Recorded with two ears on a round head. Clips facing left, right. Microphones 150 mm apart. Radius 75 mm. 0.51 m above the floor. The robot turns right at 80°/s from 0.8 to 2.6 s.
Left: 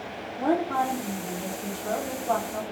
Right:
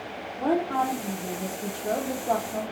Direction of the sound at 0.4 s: Centre (ahead or behind).